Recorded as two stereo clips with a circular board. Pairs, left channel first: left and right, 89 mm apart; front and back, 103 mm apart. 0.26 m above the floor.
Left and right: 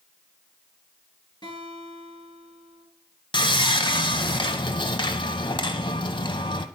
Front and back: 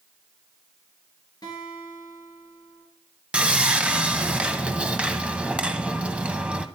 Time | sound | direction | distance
1.4 | a guitar | 50° left | 3.5 m
3.3 | sawing | 105° left | 0.6 m